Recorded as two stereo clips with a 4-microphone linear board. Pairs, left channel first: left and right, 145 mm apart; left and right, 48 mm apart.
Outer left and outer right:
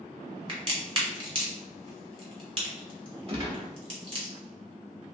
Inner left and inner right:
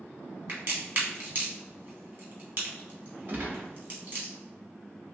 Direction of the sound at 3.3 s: 40° right (ahead or behind).